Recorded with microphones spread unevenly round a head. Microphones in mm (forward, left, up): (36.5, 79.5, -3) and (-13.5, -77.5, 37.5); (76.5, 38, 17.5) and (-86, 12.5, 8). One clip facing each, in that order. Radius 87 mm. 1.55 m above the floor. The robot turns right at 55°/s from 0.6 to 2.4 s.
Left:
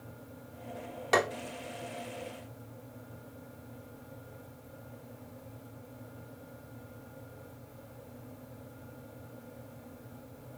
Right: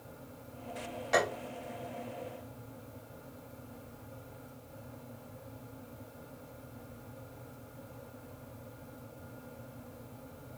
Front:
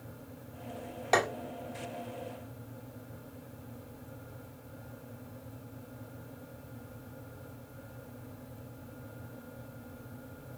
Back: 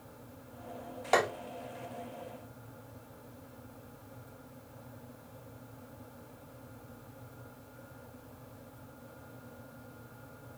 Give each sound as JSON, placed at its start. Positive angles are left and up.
{"t": 1.1, "sound": "tapping", "azimuth_deg": 90, "distance_m": 1.2}